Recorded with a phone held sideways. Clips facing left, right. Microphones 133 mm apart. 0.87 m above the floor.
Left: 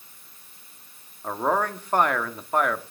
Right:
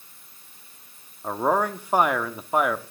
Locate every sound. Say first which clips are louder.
1.2 s a man speaking: right 2 dB; 10° right (ahead or behind), 1.4 m